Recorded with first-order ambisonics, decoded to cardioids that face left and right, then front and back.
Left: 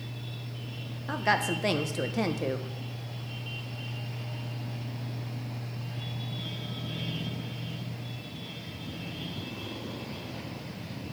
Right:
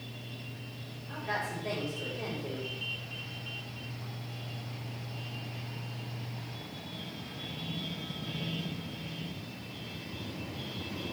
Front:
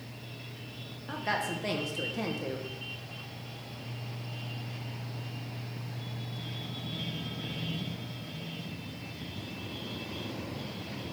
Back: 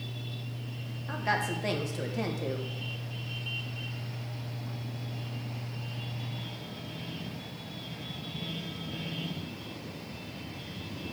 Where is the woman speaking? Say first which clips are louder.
Left 8 dB, back 2 dB; 95° left, 0.8 m.